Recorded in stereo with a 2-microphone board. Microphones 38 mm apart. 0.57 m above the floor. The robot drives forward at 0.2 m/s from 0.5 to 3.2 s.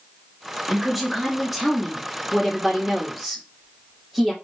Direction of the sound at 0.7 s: 5° right (ahead or behind).